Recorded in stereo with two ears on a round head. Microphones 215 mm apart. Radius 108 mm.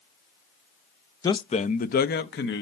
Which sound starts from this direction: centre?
A man speaking, at 1.2 s.